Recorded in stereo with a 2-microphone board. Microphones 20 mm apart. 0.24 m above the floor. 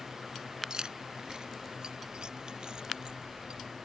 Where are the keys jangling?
40° right (ahead or behind); by 3.6 s 50° right (ahead or behind).